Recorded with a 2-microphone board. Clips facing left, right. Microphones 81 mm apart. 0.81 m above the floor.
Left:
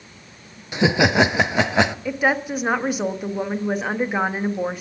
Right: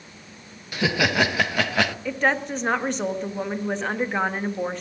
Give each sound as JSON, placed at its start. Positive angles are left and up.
{"t": 0.7, "sound": "laughter", "side_deg": 20, "distance_m": 0.6}
{"t": 2.0, "sound": "a woman speaking", "side_deg": 10, "distance_m": 1.2}